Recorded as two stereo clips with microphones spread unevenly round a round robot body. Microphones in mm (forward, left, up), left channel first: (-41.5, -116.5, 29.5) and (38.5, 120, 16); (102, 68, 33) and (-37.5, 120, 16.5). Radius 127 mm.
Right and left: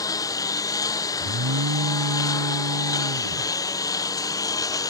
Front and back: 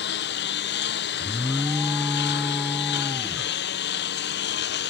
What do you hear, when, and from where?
0.0 s a lawn mower: 30° right
1.2 s an alarm: 65° left